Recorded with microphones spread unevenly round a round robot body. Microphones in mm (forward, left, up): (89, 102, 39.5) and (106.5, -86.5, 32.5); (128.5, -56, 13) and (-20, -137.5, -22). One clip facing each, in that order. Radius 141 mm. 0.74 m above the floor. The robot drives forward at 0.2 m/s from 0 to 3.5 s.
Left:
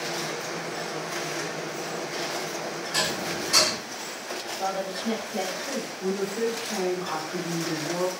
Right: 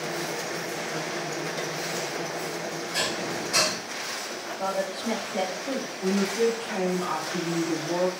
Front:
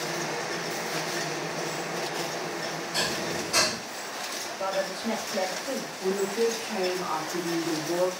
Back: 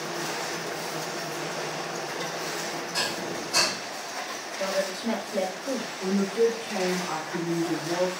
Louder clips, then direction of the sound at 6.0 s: Right 3 dB, back 2 dB; straight behind.